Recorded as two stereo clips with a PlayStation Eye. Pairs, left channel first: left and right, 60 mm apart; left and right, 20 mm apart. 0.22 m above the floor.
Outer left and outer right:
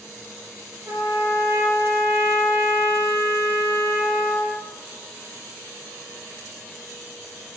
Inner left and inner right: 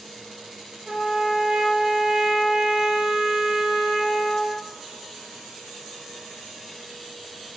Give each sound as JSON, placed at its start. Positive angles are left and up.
{"t": 0.9, "sound": "a trumpet", "side_deg": -50, "distance_m": 3.0}